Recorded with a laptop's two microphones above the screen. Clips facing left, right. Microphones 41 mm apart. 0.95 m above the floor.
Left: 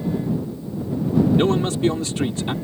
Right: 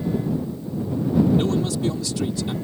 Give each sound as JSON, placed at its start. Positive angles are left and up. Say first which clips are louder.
{"t": 1.4, "sound": "a man speaking", "louder": "left 3 dB", "side_deg": 45}